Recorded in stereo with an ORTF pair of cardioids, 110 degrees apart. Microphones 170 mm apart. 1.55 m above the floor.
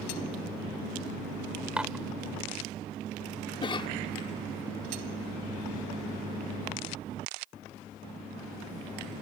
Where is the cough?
30° left.